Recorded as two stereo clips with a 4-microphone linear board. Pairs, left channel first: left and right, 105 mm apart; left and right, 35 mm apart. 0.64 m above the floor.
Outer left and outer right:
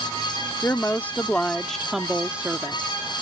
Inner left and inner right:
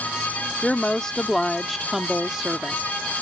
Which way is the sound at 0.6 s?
25° left (ahead or behind).